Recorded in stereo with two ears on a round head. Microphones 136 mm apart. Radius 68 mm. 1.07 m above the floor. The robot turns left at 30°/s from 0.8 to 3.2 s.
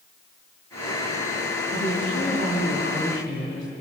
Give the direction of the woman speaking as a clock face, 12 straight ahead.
8 o'clock.